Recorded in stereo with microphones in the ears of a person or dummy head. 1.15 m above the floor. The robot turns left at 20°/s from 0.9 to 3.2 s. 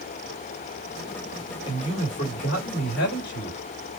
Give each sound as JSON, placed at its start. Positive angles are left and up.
{"t": 1.6, "sound": "a man speaking", "azimuth_deg": 150, "distance_m": 2.5}